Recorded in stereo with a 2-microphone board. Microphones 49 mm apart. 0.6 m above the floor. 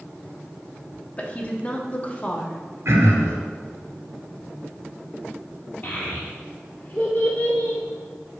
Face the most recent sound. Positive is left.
turn(degrees=45)  # may be behind; listen again after turning